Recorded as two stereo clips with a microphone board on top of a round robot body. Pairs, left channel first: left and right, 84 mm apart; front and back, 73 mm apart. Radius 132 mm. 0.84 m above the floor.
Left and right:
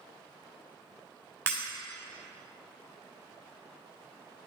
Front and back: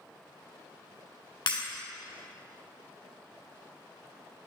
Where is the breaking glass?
25° right, 3 m.